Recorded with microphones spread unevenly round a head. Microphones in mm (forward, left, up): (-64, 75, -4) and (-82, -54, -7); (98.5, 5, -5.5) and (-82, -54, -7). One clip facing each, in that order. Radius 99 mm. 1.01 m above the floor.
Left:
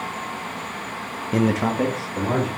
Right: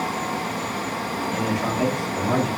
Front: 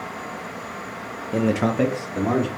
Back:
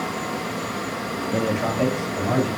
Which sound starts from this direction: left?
A man speaking, at 1.3 s.